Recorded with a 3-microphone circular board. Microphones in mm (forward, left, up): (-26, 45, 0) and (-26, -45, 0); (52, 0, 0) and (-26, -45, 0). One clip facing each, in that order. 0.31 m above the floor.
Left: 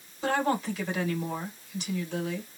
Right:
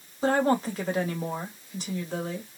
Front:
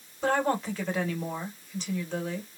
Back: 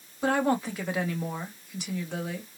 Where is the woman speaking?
75° right, 1.7 m.